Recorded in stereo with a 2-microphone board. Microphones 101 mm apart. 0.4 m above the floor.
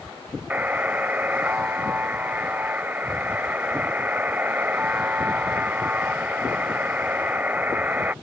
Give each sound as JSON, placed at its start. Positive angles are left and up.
{"t": 0.5, "sound": "a buzzer", "side_deg": -15}